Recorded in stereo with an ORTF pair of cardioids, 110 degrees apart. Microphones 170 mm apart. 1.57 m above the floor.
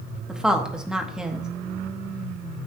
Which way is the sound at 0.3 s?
5° right.